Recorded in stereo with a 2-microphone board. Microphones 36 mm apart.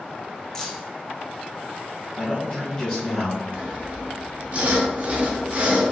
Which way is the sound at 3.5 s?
45° right (ahead or behind).